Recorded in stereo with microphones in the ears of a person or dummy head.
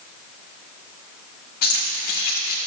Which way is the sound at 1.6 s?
60° left (ahead or behind).